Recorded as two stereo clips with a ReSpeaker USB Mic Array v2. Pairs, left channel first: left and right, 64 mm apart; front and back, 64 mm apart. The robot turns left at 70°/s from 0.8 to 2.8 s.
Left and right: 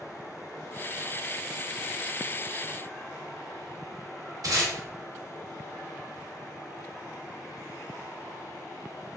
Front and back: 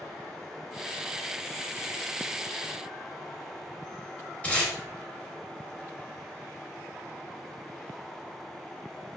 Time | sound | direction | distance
4.4 | tape being pulled | 65° right | 0.9 m